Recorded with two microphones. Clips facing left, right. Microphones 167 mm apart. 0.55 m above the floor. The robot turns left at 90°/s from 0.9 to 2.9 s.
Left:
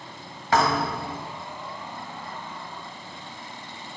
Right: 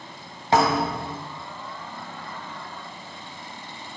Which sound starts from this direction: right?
A thud, at 0.5 s.